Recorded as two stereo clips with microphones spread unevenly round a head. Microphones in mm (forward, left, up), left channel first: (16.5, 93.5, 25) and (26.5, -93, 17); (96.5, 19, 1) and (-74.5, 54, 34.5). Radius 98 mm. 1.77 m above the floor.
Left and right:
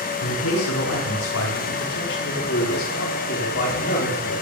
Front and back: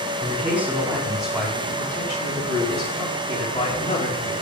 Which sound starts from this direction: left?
A man speaking, at 0.2 s.